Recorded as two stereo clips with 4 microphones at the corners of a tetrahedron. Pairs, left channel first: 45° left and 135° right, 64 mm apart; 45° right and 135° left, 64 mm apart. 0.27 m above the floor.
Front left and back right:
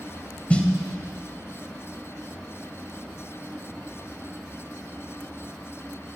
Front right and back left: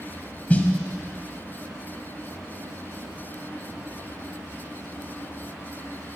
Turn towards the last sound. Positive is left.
turn(degrees=-5)